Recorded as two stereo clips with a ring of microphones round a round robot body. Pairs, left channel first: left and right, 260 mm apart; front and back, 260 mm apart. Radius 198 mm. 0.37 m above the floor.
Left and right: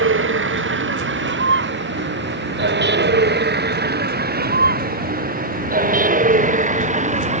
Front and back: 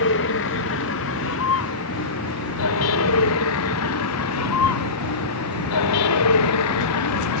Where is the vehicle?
55° right; by 7.4 s 30° right.